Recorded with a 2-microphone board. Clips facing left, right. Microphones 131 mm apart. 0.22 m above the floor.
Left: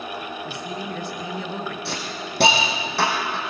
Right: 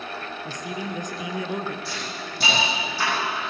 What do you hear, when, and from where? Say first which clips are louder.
0.5 s a man speaking: left 1 dB; 15° right (ahead or behind), 2.5 m
1.9 s a hiss: left 3 dB; 75° left (ahead or behind), 5.5 m